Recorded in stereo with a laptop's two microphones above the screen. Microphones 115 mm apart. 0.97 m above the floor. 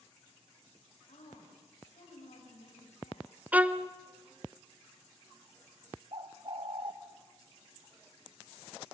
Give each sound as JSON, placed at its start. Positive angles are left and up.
{"t": 1.1, "sound": "a woman speaking", "side_deg": 80, "distance_m": 6.0}
{"t": 3.5, "sound": "a violin", "side_deg": -15, "distance_m": 0.6}
{"t": 6.1, "sound": "a bird", "side_deg": -45, "distance_m": 1.2}